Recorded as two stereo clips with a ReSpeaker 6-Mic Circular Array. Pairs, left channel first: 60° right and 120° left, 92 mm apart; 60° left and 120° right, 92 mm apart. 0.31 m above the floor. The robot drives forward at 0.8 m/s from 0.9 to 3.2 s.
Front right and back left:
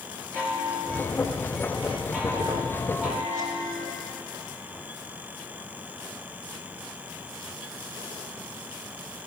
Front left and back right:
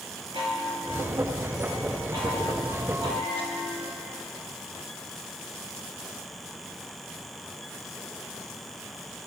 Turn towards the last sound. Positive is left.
turn(degrees=-145)